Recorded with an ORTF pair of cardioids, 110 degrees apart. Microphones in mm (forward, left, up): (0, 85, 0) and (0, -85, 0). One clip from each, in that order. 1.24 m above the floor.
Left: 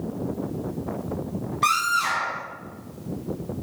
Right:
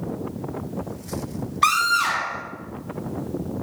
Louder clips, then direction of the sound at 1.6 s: Right 3 dB; 30° right.